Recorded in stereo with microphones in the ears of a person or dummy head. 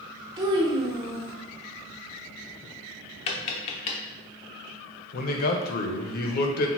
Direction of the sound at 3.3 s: 35° left (ahead or behind).